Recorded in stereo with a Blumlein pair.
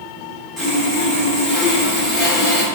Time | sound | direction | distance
0.6 | sawing | straight ahead | 1.2 m